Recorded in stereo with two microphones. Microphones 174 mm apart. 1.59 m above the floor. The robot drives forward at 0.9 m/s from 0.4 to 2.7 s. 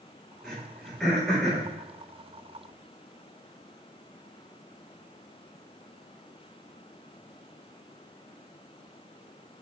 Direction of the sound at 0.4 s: Centre (ahead or behind).